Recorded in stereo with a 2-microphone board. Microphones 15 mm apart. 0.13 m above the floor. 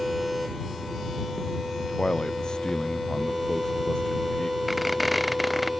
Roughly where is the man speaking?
Left.